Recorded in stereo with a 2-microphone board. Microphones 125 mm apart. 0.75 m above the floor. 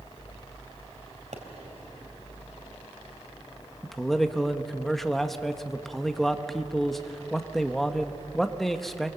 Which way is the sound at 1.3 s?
80° right.